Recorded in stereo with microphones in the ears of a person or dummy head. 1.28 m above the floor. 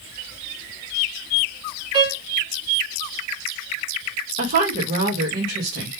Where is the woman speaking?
45° right (ahead or behind), 1.5 m.